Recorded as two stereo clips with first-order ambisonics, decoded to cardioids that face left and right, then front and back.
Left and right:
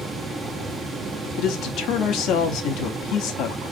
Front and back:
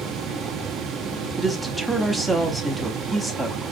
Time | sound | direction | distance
1.4 | a man speaking | 85° left | 0.8 m